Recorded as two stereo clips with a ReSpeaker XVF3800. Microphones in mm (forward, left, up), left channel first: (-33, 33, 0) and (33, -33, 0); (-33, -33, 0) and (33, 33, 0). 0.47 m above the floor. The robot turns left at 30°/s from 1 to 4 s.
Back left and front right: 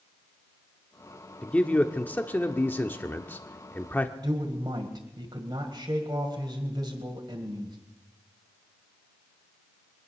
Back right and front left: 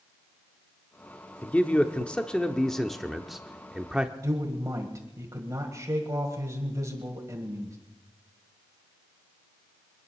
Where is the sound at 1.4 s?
170° right, 0.9 m; by 4.1 s 110° left, 0.9 m.